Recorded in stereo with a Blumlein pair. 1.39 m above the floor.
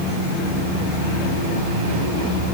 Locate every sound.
Only background noise.